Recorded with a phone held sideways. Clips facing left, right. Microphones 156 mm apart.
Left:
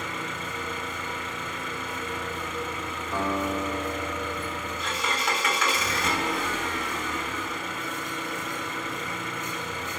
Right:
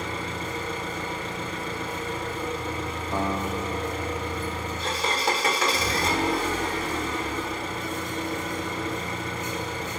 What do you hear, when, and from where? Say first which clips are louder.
0.0 s an engine running: right 3 dB; 35° right (ahead or behind), 1.2 m
3.1 s a guitar: left 1 dB; 20° right (ahead or behind), 1.8 m